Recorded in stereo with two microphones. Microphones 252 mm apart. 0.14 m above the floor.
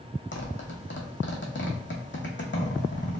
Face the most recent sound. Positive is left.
turn(degrees=50)  # may be behind; listen again after turning